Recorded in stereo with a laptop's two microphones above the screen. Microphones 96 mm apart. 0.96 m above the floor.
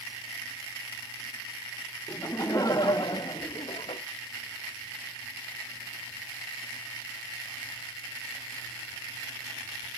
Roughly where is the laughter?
Left.